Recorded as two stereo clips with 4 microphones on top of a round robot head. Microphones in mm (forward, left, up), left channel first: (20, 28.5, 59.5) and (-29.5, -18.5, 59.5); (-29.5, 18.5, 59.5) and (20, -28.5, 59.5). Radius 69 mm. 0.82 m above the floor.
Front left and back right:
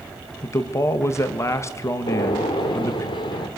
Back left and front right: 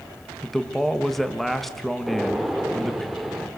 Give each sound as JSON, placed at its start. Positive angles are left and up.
{"t": 0.4, "sound": "a man speaking", "azimuth_deg": 50, "distance_m": 1.2}
{"t": 2.1, "sound": "a gunshot", "azimuth_deg": 45, "distance_m": 1.6}